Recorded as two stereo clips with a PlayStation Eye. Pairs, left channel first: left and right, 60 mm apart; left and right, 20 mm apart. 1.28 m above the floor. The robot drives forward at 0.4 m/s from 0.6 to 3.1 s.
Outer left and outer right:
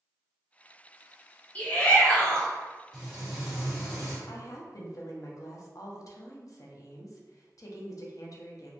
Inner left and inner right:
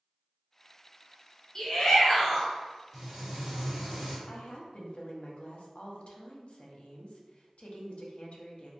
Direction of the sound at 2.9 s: 10° right (ahead or behind).